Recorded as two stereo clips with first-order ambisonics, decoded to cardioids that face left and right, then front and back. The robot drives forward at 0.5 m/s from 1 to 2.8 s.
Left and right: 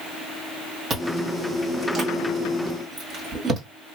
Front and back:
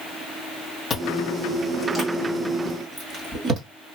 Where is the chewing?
50° right, 1.1 m; by 3.6 s 145° right, 1.2 m.